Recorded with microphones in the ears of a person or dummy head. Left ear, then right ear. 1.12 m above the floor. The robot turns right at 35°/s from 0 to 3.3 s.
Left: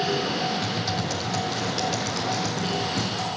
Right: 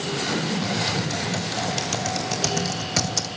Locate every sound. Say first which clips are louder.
0.6 s typing on a keyboard: right 2 dB; 15° left (ahead or behind), 1.1 m; by 3.3 s 60° right (ahead or behind), 1.1 m